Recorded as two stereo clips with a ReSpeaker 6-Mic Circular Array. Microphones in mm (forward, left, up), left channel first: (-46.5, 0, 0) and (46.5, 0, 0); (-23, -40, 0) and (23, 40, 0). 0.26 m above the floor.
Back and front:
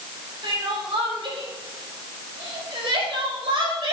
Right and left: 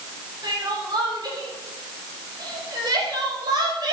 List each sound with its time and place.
0.4 s crying: 20° left, 5 m